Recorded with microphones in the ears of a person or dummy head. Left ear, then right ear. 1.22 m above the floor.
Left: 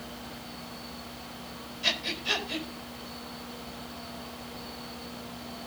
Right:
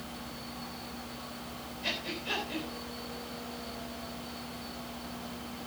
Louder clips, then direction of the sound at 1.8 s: Left 6 dB; 25° left (ahead or behind).